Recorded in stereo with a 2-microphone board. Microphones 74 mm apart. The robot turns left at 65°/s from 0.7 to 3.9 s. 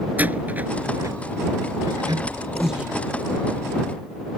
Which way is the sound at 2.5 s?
Centre (ahead or behind).